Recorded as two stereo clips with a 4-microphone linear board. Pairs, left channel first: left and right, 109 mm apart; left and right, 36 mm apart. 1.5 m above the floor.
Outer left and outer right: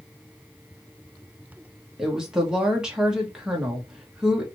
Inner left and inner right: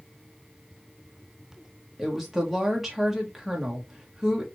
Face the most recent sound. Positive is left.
turn(degrees=-5)  # may be behind; listen again after turning